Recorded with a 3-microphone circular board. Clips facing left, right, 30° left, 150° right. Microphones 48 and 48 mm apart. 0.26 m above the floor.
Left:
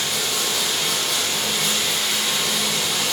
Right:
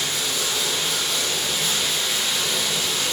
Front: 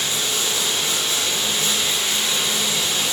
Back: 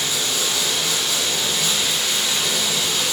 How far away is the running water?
About 6 m.